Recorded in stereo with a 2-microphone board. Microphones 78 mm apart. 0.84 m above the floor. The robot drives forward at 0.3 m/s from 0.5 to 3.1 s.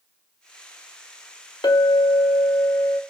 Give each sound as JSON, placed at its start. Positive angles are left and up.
{"t": 1.6, "sound": "a clink", "side_deg": 70, "distance_m": 0.7}